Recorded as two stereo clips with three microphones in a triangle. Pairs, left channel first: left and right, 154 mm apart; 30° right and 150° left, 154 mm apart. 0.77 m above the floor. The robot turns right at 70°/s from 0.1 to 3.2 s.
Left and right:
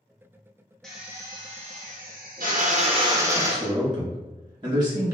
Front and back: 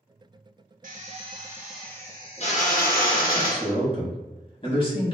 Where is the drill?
175° left, 0.7 m; by 3.7 s 20° right, 0.7 m.